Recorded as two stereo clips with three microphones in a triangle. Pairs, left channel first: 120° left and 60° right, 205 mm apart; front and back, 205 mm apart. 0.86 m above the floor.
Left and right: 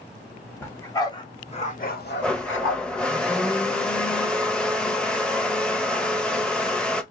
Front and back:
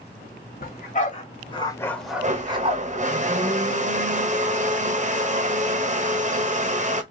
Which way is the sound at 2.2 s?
155° right.